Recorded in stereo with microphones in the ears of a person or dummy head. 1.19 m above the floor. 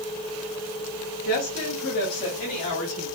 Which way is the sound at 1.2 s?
55° left (ahead or behind).